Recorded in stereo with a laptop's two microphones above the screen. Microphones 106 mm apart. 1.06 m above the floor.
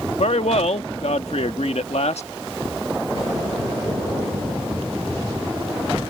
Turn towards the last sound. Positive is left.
turn(degrees=85)